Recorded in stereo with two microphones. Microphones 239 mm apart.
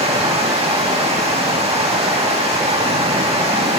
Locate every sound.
0.0 s running water: 25° right (ahead or behind), 2.5 m